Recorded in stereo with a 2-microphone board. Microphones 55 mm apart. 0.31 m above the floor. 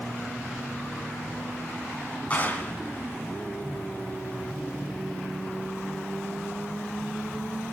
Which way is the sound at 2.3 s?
25° left (ahead or behind).